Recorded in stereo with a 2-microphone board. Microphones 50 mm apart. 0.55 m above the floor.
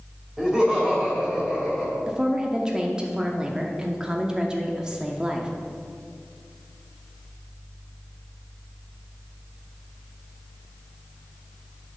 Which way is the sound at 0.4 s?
10° right (ahead or behind).